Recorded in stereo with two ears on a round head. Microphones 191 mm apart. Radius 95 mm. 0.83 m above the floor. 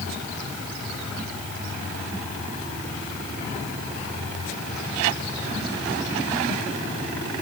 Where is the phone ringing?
I don't hear a phone ringing.